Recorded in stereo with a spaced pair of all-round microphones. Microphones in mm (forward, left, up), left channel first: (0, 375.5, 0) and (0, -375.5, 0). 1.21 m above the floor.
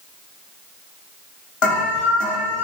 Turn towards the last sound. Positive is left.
turn(degrees=40)  # may be behind; listen again after turning